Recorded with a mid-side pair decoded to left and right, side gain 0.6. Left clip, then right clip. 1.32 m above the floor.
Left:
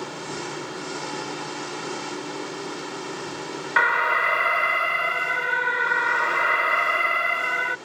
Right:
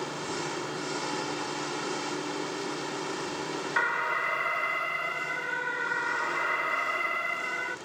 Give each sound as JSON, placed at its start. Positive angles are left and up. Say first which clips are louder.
{"t": 0.0, "sound": "an engine running", "louder": "left 1 dB", "azimuth_deg": 10}
{"t": 3.8, "sound": "an alarm", "louder": "left 9 dB", "azimuth_deg": 40}